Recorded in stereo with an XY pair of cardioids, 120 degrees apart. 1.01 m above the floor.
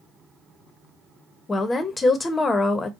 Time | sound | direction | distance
1.5 | a woman speaking | 30° left | 0.9 m